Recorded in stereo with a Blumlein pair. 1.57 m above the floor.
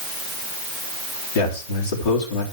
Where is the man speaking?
55° left, 3.5 m.